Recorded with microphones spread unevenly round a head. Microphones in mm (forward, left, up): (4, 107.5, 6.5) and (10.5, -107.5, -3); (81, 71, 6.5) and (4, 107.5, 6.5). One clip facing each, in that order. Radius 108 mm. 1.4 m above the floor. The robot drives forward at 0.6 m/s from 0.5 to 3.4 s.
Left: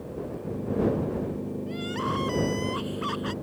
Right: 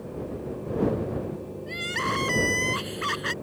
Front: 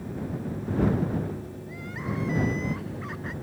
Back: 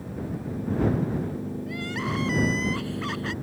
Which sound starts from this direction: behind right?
Crying, at 1.7 s.